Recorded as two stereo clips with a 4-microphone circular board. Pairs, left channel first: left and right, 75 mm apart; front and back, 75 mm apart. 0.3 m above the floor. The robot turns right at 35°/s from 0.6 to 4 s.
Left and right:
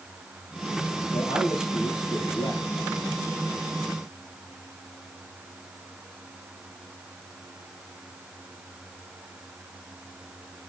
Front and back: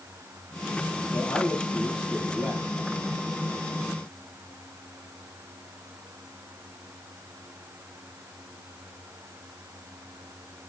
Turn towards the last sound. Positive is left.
turn(degrees=160)